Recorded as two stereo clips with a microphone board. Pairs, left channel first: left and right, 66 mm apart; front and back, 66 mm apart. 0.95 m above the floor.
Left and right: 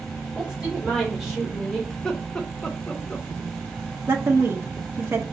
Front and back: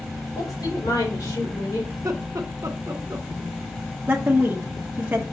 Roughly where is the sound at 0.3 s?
Ahead.